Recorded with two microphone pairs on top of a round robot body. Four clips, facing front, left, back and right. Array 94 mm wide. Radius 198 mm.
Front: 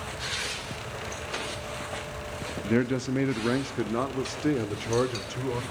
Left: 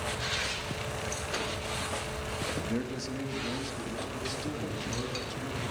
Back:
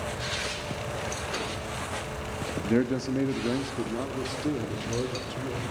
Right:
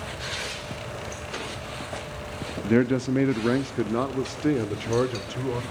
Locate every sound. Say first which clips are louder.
2.6 s a man speaking: right 12 dB, even; 105° right, 1.3 m; by 5.6 s 50° right, 3 m